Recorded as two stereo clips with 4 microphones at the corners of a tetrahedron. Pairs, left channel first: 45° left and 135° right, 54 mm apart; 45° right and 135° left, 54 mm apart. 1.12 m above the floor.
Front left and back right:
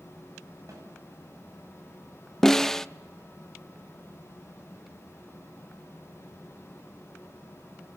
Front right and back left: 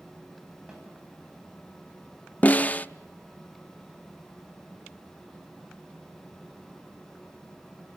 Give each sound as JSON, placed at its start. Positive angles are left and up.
{"t": 0.7, "sound": "a snare drum", "azimuth_deg": -150, "distance_m": 9.0}
{"t": 2.4, "sound": "a snare drum", "azimuth_deg": -30, "distance_m": 0.6}